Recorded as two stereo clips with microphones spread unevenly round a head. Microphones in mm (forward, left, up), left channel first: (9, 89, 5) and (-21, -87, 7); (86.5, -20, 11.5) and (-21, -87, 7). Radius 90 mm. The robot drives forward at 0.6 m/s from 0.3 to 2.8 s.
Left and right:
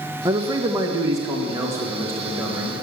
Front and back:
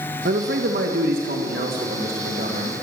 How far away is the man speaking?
About 1.1 m.